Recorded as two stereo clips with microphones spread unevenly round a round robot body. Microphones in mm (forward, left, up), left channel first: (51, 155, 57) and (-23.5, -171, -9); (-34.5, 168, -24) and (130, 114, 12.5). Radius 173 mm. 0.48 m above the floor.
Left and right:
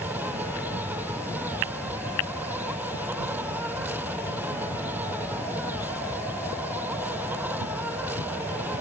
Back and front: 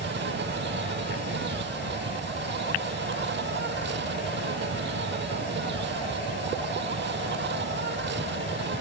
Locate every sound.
0.0 s an insect: 15° right